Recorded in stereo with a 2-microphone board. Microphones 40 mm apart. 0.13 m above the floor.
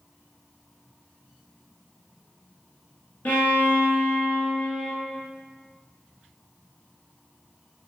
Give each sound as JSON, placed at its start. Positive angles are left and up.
{"t": 3.2, "sound": "a violin", "side_deg": 50, "distance_m": 1.1}